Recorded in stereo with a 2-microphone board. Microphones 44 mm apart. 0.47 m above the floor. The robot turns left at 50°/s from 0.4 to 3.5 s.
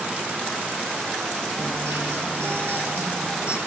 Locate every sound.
1.6 s a guitar: 65° right, 8 m; by 3.6 s 160° right, 8 m